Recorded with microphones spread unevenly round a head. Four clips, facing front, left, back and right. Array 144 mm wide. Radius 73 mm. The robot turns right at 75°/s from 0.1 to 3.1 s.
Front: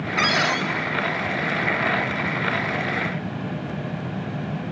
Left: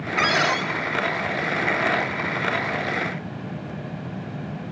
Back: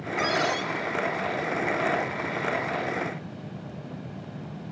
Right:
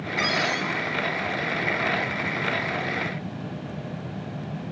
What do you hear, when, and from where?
0.2 s a cupboard door: 35° left, 1.8 m; by 0.7 s 75° left, 1.8 m